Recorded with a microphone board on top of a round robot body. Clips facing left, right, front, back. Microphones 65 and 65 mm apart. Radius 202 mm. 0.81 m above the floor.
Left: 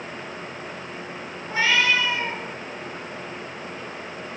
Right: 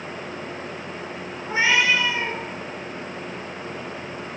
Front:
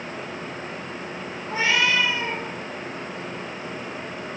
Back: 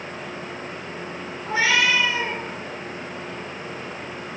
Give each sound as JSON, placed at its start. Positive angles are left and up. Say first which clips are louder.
{"t": 1.4, "sound": "a cat meowing", "louder": "right 1 dB, back 2 dB", "azimuth_deg": -160, "distance_m": 3.5}